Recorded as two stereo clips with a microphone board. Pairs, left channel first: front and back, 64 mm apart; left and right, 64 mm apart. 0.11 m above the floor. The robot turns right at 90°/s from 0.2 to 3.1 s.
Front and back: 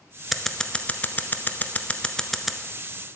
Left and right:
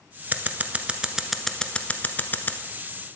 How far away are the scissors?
About 0.7 m.